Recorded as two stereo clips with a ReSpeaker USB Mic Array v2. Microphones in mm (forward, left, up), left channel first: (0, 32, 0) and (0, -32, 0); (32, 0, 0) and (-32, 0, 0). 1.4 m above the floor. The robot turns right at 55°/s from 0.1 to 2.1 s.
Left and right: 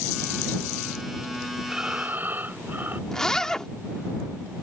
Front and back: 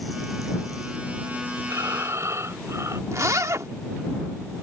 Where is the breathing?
170° right; by 3.0 s 145° right.